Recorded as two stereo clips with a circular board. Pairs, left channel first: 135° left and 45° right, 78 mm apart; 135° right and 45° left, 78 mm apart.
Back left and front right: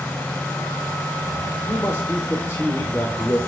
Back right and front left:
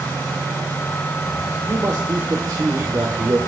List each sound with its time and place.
1.7 s a man speaking: 85° left, 2 m